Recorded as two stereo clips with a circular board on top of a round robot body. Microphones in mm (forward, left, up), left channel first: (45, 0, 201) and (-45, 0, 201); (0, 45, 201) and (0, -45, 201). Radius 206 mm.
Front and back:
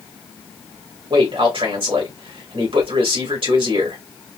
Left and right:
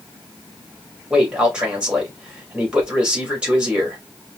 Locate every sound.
1.1 s a man speaking: 170° right, 2.5 m